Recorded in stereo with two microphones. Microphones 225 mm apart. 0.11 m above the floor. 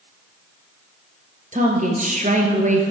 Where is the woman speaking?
35° right (ahead or behind), 1.9 m.